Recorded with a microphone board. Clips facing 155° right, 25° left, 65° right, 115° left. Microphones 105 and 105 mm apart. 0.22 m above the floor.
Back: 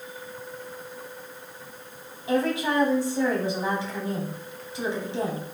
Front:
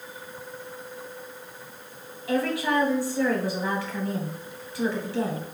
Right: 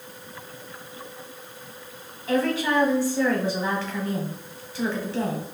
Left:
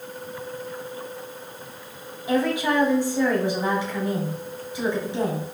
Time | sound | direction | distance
2.3 | a woman speaking | 165° left | 1.2 m